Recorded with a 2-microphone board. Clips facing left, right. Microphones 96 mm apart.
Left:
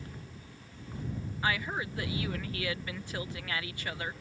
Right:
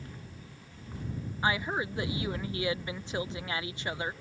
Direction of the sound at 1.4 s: 20° right (ahead or behind).